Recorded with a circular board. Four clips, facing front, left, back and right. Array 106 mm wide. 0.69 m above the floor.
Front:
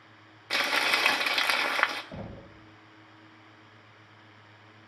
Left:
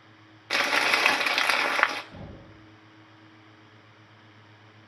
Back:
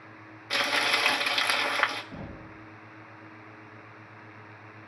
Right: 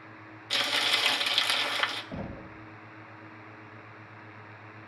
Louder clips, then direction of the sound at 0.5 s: Left 6 dB, even; 80° left.